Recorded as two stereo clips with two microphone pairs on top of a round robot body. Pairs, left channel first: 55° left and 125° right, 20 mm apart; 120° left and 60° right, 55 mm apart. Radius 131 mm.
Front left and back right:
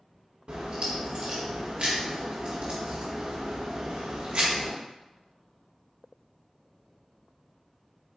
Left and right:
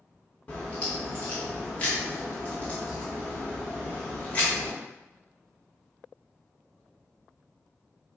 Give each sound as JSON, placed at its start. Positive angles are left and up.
{"t": 0.5, "sound": "a crack", "azimuth_deg": -170, "distance_m": 0.7}